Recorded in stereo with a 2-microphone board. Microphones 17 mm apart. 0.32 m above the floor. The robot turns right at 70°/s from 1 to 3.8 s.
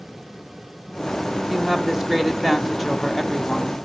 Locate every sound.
1.5 s a woman speaking: 25° right (ahead or behind), 1.5 m; by 3.9 s 20° left (ahead or behind), 1.5 m